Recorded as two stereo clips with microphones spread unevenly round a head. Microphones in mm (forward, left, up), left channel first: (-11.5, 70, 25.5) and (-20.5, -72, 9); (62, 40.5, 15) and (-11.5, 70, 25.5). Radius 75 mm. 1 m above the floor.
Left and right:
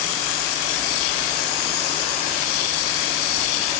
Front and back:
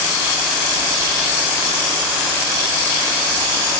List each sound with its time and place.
Only background noise.